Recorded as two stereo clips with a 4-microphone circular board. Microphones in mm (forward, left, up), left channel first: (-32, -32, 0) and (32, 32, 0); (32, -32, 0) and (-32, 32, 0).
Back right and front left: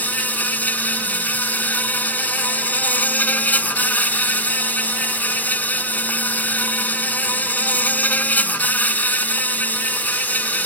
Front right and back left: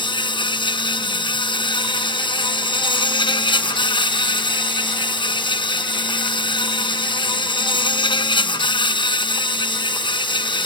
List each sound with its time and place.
0.0 s an insect: 65° right